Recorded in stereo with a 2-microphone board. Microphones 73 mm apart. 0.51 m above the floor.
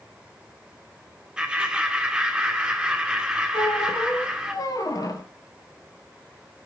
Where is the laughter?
10° right (ahead or behind), 1.5 m.